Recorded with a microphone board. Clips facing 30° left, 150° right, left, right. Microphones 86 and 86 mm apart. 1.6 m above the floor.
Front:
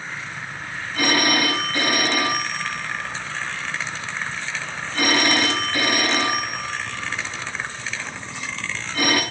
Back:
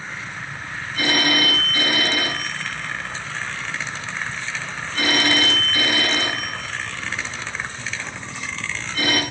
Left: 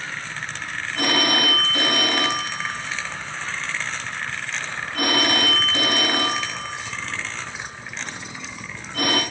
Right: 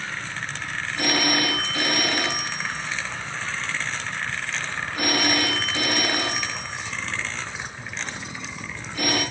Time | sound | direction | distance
0.9 | a phone ringing | 70° left | 6.5 m